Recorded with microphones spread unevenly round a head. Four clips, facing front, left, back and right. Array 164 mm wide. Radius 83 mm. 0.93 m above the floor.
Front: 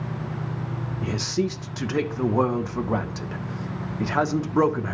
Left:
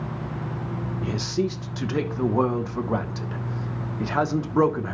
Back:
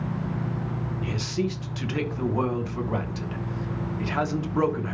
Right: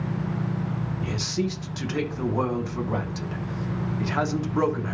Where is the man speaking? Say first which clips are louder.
Left 4 dB, front 4 dB; 35° left, 0.8 m.